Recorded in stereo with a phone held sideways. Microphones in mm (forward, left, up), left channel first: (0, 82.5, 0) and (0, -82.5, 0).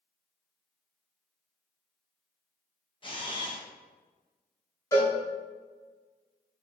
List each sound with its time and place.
3.0 s a camera shutter: 30° left (ahead or behind), 0.8 m
4.9 s a cowbell: 20° left (ahead or behind), 1.2 m